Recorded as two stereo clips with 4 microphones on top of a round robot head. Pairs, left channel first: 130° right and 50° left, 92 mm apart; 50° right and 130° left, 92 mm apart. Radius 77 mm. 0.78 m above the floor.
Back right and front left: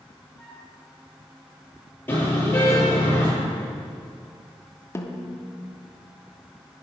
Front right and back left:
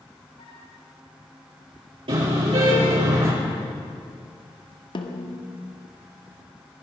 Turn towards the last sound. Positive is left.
turn(degrees=-75)